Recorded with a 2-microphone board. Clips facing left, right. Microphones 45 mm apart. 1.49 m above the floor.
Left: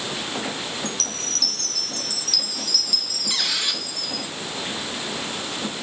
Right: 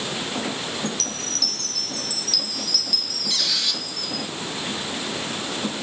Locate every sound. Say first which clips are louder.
0.8 s a chime: right 1 dB; 5° right (ahead or behind), 0.7 m
3.3 s a squeak: left 1 dB; 30° left (ahead or behind), 1.5 m